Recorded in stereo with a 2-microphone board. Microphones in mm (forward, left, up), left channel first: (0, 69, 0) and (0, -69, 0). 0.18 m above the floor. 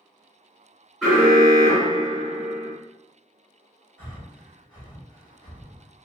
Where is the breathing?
15° left (ahead or behind), 2.0 m.